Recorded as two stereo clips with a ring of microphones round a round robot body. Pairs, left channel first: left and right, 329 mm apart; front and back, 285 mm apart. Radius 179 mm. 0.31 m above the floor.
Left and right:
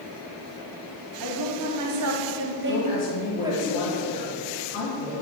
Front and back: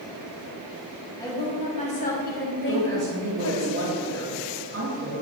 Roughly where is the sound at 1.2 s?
Right.